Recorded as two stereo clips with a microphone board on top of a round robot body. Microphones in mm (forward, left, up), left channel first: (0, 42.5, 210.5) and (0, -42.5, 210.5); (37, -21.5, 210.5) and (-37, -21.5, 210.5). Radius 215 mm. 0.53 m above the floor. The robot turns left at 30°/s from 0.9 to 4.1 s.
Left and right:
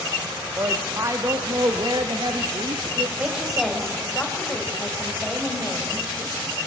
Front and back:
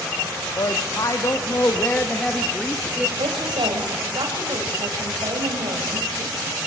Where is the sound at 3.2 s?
165° right, 4 m; by 6.6 s 165° left, 4 m.